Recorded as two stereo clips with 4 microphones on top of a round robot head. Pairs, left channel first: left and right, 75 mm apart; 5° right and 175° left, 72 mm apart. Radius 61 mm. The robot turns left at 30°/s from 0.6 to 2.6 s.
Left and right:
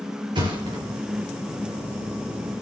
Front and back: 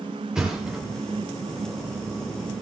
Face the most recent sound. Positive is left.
turn(degrees=-165)